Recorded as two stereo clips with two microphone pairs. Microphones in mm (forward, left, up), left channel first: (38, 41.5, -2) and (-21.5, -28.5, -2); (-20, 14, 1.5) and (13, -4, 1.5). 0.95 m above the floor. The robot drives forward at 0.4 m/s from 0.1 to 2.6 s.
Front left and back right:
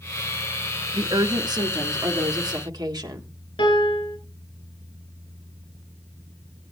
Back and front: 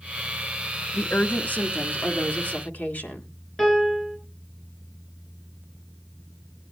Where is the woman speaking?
170° right, 1.0 m; by 3.3 s 175° right, 1.6 m.